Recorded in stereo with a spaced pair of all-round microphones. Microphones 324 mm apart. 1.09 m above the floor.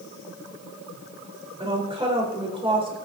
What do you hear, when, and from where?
1.6 s a woman speaking: 15° right (ahead or behind), 3 m